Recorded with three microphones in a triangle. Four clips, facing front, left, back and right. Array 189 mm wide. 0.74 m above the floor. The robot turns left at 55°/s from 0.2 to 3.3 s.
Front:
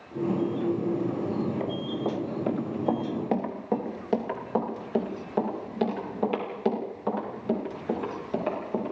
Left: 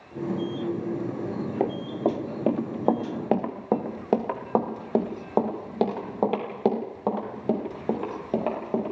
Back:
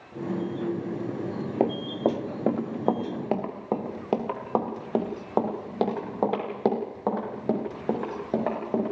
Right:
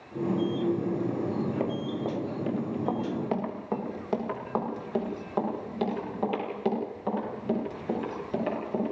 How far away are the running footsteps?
About 3 m.